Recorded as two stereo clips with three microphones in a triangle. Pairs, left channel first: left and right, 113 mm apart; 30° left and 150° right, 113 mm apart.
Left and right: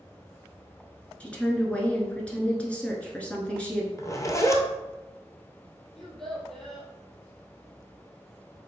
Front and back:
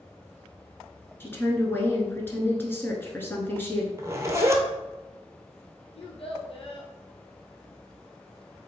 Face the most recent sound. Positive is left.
turn(degrees=0)